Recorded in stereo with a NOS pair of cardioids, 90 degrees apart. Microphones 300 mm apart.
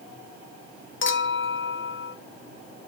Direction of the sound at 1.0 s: 40° left.